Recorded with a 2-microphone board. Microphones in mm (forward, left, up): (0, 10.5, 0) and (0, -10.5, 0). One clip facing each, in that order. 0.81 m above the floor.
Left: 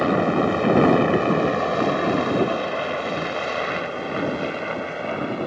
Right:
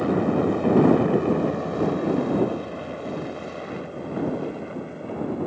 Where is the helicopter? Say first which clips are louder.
Left 2 dB; 40° left (ahead or behind); by 5.5 s 60° left (ahead or behind).